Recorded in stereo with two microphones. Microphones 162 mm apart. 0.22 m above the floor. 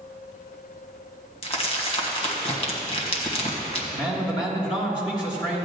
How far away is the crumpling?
About 1.6 m.